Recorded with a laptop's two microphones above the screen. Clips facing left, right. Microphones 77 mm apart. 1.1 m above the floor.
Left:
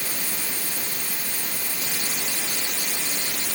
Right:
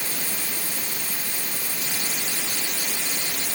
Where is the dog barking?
No dog barking in this recording.